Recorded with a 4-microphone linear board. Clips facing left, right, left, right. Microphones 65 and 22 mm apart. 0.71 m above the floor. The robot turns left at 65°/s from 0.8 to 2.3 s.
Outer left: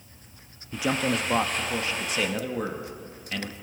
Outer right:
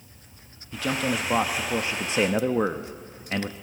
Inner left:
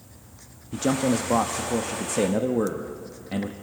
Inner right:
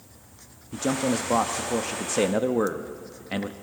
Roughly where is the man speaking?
Ahead left.